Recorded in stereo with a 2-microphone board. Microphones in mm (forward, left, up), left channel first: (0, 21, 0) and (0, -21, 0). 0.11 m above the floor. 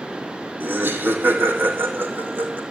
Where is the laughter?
55° right (ahead or behind), 3.5 m; by 2.6 s 50° right (ahead or behind), 5 m.